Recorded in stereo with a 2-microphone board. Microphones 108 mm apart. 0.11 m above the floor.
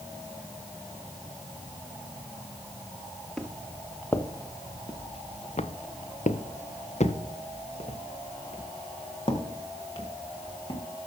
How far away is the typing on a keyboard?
No typing on a keyboard in this recording.